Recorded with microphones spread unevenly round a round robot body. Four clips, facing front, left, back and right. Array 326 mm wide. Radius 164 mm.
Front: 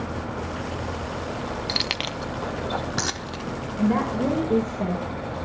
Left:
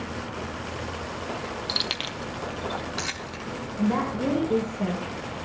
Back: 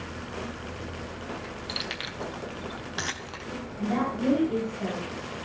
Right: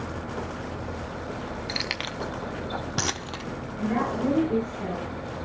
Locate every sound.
1.7 s keys jangling: 20° left, 0.7 m; by 3.5 s 60° right, 1.1 m
3.8 s a woman speaking: 20° left, 4.5 m